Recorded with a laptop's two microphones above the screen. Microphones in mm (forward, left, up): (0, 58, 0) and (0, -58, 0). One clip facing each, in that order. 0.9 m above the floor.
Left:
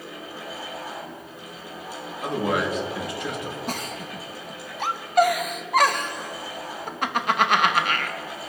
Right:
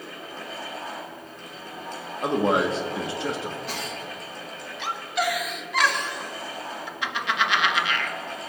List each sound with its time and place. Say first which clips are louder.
0.0 s a fan: left 1 dB; 10° left (ahead or behind), 5 m
2.2 s a man speaking: right 3 dB; 30° right (ahead or behind), 1.8 m
3.7 s a giggle: left 2 dB; 50° left (ahead or behind), 0.9 m